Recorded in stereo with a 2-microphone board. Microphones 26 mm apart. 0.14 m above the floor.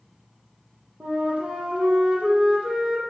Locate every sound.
1.0 s a flute: 60° right (ahead or behind), 5.5 m